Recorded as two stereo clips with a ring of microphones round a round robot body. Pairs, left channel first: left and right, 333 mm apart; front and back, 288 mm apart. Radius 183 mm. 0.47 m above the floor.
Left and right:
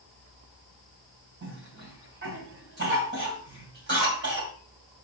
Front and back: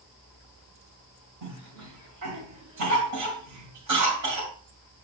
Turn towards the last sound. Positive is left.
turn(degrees=-150)